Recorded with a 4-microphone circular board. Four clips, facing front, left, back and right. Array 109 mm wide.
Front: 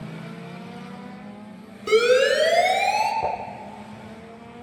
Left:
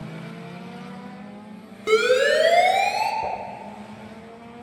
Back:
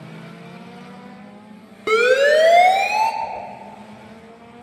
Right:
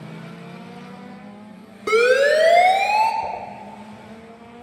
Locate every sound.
1.9 s a siren: 165° right, 2.5 m; by 3.1 s 175° left, 2.5 m
3.2 s dishes clattering: 15° left, 5 m